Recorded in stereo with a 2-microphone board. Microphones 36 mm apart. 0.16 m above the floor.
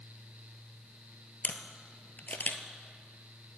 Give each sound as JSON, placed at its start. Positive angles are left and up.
{"t": 1.4, "sound": "a camera shutter", "side_deg": 55, "distance_m": 0.8}